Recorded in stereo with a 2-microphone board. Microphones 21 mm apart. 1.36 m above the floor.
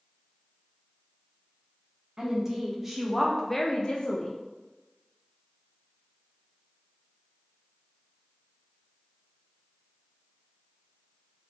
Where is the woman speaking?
30° right (ahead or behind), 1.3 m; by 4.4 s 65° left (ahead or behind), 0.7 m.